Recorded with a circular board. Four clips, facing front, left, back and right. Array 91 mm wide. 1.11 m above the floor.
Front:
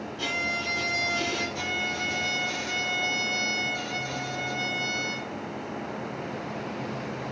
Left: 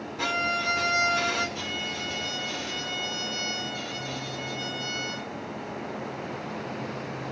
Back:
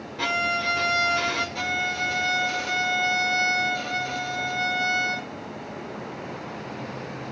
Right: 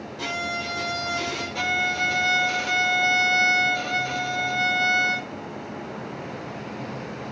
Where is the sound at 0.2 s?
160° left, 7 m.